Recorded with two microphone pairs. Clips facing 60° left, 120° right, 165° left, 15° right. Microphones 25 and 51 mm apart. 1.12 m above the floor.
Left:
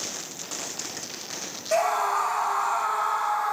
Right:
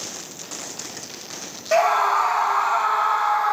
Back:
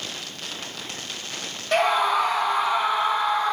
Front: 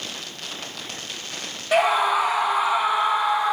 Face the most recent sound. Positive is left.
turn(degrees=-100)